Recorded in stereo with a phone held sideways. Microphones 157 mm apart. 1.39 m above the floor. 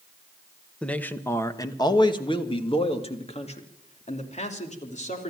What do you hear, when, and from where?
0.8 s a man speaking: 5° left (ahead or behind), 1.3 m; by 5.3 s 50° left (ahead or behind), 3.5 m